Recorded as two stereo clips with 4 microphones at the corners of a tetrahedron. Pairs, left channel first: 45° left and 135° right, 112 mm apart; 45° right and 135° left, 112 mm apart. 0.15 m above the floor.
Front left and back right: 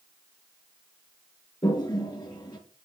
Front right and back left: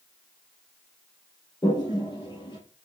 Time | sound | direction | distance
1.6 | a toilet flushing | straight ahead | 2 m